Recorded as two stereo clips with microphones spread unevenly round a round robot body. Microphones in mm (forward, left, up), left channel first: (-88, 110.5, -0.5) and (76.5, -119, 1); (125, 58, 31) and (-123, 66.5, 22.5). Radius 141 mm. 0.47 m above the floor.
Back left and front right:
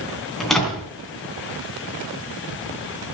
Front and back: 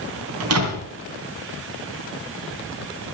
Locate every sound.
0.4 s a door slam: 145° right, 3 m